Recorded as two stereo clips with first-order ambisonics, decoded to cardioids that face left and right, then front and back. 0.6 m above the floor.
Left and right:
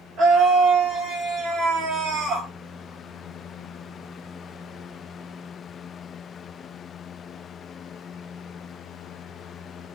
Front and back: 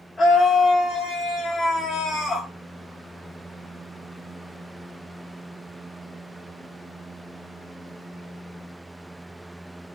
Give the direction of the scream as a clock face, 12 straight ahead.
3 o'clock.